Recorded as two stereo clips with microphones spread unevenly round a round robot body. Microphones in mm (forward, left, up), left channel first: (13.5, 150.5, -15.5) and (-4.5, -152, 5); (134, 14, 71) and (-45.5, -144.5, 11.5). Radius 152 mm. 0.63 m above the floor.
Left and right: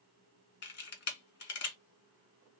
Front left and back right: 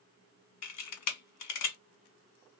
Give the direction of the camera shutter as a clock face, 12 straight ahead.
11 o'clock.